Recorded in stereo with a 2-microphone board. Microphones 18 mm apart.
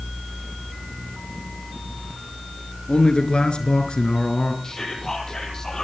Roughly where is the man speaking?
Left.